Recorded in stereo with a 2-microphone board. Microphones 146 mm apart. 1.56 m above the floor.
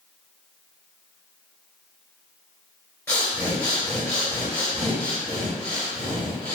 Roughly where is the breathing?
Centre.